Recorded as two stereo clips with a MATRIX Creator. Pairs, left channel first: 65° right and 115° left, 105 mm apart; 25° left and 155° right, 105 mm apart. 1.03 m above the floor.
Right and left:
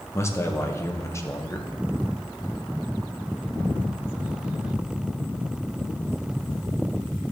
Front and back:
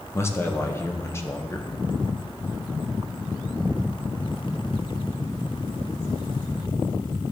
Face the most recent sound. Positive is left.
turn(degrees=-25)